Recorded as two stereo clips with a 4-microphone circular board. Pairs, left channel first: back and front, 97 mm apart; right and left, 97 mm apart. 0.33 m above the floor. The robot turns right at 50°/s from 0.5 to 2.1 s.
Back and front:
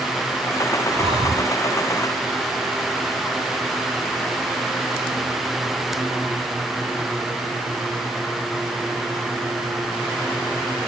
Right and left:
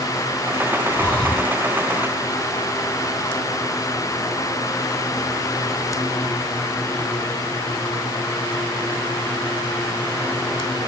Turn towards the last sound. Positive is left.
turn(degrees=35)